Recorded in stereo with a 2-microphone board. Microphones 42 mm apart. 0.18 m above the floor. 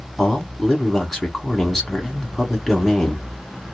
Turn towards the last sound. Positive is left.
turn(degrees=0)  # may be behind; listen again after turning